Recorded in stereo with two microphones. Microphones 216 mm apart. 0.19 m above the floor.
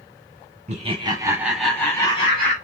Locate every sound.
0.7 s laughter: 30° right (ahead or behind), 1.4 m; by 2.5 s 35° left (ahead or behind), 1.4 m